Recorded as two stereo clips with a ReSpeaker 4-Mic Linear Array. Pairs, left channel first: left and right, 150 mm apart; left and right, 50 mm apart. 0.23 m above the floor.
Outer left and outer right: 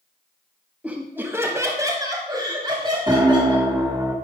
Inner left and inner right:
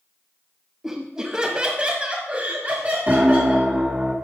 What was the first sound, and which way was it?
Laughter, 10° right (ahead or behind).